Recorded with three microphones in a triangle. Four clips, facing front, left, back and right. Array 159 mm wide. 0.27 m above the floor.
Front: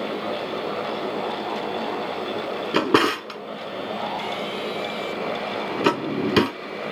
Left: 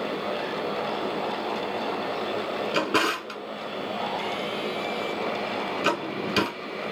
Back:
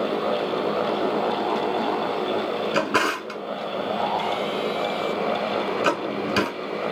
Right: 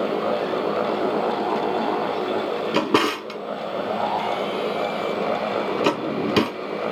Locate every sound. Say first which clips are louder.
2.7 s a drawer: right 5 dB, front 6 dB; 30° right, 1.2 m